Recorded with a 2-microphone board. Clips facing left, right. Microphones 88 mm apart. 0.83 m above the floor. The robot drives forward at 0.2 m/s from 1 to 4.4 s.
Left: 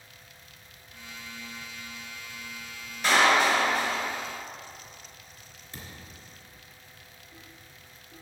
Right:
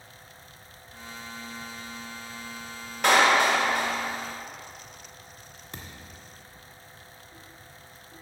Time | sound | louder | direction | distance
3.0 | a clap | right 2 dB | 85° right | 1.9 m
5.7 | a thud | right 1 dB | 75° right (ahead or behind) | 1.7 m